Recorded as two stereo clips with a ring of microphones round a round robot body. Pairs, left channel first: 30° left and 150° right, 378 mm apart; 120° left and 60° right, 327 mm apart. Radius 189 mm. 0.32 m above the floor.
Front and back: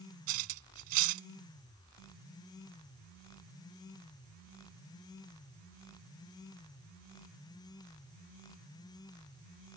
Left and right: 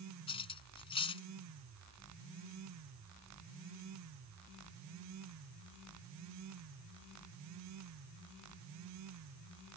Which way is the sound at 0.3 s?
165° right.